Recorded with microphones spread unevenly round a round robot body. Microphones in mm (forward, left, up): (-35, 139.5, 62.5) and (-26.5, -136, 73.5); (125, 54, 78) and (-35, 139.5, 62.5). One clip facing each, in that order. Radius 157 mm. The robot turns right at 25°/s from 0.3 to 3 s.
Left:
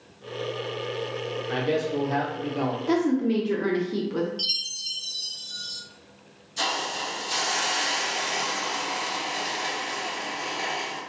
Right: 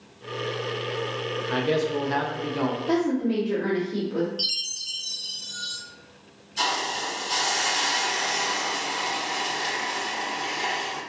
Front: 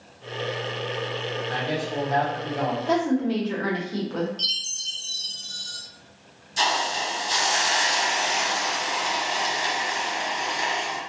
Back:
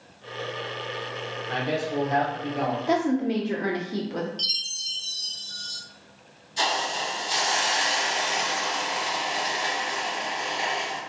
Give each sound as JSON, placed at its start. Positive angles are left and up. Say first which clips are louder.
{"t": 1.5, "sound": "a man speaking", "louder": "right 2 dB, back 3 dB", "azimuth_deg": -165, "distance_m": 0.6}
{"t": 2.9, "sound": "a woman speaking", "louder": "left 2 dB, front 1 dB", "azimuth_deg": 100, "distance_m": 0.5}
{"t": 4.4, "sound": "a chime", "louder": "right 3 dB, front 1 dB", "azimuth_deg": 170, "distance_m": 0.9}
{"t": 6.6, "sound": "a hiss", "louder": "right 1 dB, front 2 dB", "azimuth_deg": 0, "distance_m": 1.0}